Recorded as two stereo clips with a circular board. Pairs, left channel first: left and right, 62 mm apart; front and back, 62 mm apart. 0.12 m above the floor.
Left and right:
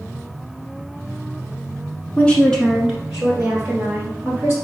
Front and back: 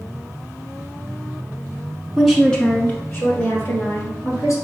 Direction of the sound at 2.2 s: 105° left.